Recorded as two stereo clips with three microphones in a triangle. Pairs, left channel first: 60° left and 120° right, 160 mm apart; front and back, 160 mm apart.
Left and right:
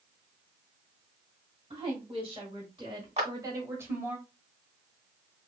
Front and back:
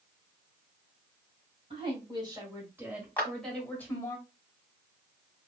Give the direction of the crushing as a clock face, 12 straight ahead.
No crushing in this recording.